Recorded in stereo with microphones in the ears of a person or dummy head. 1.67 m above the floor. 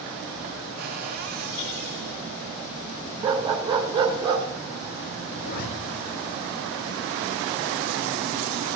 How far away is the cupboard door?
About 2.5 m.